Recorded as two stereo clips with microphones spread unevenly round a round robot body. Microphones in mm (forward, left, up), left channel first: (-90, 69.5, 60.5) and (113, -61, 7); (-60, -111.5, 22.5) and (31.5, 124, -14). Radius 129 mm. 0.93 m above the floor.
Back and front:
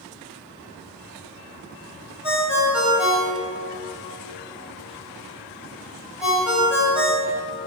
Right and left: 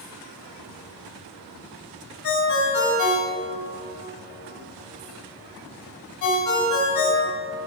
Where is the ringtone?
120° right, 2 m.